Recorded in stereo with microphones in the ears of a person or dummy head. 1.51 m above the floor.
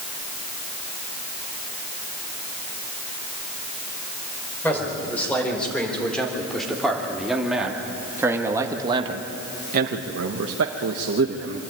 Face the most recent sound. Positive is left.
turn(degrees=-50)  # may be behind; listen again after turning